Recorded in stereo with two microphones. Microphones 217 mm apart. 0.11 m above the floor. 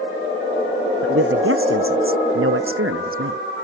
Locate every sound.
1.0 s a man speaking: 75° right (ahead or behind)